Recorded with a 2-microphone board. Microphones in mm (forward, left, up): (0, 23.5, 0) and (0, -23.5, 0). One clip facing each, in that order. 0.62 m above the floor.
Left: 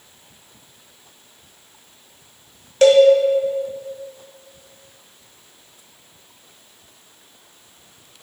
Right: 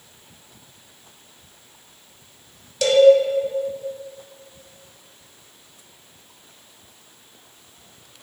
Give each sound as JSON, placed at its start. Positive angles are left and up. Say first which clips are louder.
{"t": 2.8, "sound": "a cowbell", "louder": "left 6 dB", "side_deg": 40, "distance_m": 0.9}